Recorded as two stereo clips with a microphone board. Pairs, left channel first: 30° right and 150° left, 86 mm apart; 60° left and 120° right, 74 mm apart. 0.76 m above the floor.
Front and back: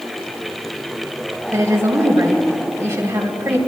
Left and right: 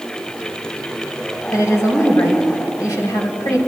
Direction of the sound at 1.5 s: 95° left.